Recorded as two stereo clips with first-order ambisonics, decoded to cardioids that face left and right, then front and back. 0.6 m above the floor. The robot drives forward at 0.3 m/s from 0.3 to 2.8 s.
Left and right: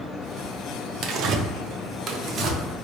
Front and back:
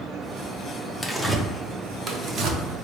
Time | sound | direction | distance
1.0 | tearing paper | 85° right | 0.5 m